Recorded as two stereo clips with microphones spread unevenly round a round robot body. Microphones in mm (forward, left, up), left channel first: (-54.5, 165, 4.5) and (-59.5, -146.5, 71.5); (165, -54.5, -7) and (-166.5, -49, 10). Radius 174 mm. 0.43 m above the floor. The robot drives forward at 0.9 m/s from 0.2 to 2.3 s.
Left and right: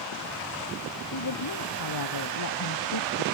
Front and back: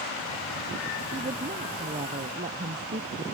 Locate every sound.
1.1 s a woman speaking: 105° left; by 3.2 s 110° left